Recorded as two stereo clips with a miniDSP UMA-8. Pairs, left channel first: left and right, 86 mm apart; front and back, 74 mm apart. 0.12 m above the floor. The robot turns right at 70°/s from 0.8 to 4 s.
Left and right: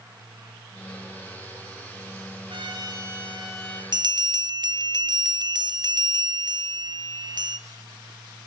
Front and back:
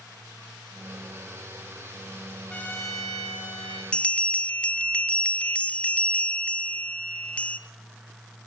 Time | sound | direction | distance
2.5 | a trumpet | 75° right | 4 m
3.9 | a bell | 75° right | 0.7 m